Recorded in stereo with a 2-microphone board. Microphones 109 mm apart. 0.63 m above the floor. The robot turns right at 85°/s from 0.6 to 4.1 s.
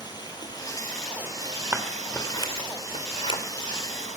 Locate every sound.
0.0 s running water: 145° left, 5 m; by 4.2 s 80° left, 5 m
1.7 s scissors: 15° right (ahead or behind), 2.5 m; by 3.4 s 50° left (ahead or behind), 2.5 m